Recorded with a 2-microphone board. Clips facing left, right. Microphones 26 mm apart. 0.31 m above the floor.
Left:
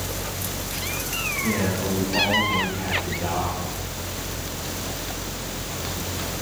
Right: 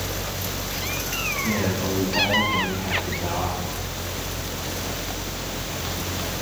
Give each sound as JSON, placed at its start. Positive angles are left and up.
{"t": 1.4, "sound": "a man speaking", "side_deg": 70, "distance_m": 7.5}